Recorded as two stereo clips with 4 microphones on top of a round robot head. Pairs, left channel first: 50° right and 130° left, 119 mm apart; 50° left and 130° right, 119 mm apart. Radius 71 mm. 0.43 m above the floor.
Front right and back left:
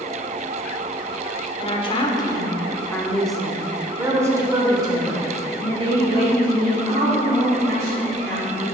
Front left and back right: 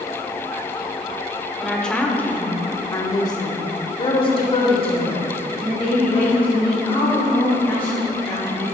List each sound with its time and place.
1.6 s a woman speaking: 35° right, 1.4 m; by 8.6 s 100° left, 3.5 m